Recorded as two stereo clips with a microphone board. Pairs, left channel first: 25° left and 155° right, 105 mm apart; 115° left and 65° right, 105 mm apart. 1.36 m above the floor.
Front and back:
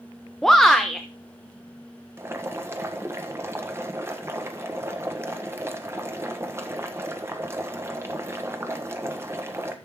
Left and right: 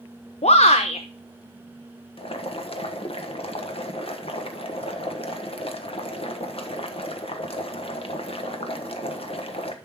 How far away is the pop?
No pop in this recording.